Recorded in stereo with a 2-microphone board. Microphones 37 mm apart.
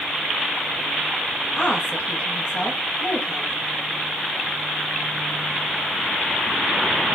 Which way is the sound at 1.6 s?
50° left (ahead or behind).